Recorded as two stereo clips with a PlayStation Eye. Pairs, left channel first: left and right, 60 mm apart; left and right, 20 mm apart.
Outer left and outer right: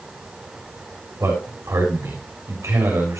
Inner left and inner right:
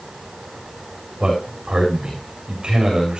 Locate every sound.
1.2 s a man speaking: 55° right (ahead or behind), 7 m